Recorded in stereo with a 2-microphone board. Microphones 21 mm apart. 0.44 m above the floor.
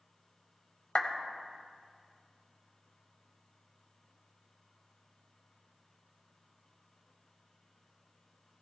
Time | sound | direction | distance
0.9 | a clap | 45° left (ahead or behind) | 1.9 m